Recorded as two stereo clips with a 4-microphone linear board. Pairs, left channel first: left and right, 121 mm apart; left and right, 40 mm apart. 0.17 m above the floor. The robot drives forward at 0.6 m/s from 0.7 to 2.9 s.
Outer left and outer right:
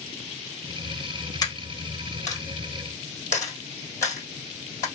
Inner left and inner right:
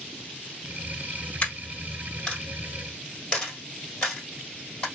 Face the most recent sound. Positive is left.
turn(degrees=20)  # may be behind; listen again after turning